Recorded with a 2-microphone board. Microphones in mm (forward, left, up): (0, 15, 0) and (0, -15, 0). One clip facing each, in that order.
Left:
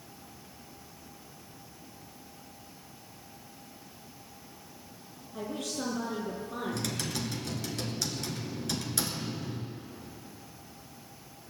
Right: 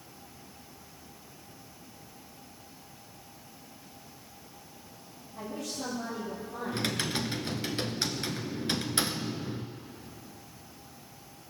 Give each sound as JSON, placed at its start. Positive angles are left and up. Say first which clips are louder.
{"t": 5.3, "sound": "a woman speaking", "louder": "left 2 dB", "side_deg": 60, "distance_m": 6.5}
{"t": 6.7, "sound": "typing on a keyboard", "louder": "right 3 dB", "side_deg": -35, "distance_m": 1.0}